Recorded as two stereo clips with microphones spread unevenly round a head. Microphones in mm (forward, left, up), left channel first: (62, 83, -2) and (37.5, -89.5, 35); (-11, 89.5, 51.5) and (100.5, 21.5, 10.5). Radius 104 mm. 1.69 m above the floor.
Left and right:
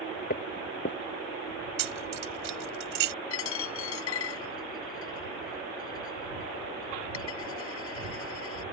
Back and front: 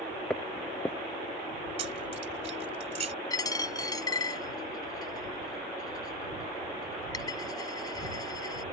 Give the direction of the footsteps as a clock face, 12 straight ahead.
9 o'clock.